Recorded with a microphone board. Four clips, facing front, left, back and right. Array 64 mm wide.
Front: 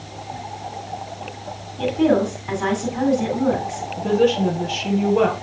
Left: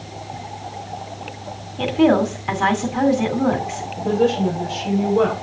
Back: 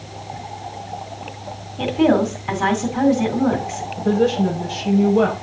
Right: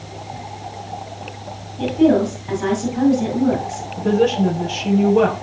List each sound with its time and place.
1.8 s a woman speaking: 115° left, 2 m
4.0 s a woman speaking: 35° right, 5 m